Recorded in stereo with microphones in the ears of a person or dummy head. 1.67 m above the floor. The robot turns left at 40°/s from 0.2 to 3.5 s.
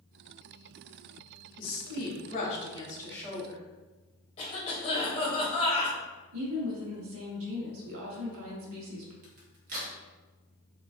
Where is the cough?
30° left (ahead or behind), 0.9 m.